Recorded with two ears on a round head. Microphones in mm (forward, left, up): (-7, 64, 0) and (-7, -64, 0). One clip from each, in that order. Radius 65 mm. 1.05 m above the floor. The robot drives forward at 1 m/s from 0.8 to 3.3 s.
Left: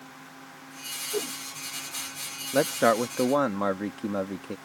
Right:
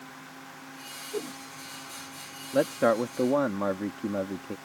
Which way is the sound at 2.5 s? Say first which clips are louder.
Left 1 dB; 80° left.